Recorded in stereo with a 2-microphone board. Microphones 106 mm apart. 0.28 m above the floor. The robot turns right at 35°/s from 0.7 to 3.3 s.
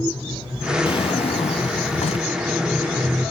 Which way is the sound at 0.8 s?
55° left.